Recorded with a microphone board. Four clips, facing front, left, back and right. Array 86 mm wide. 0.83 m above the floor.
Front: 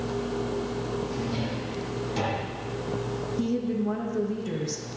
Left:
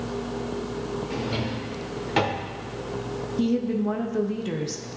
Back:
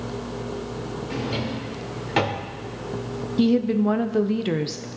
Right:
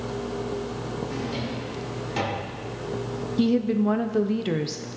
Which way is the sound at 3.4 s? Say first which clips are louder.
Right 2 dB, back 9 dB; 155° right.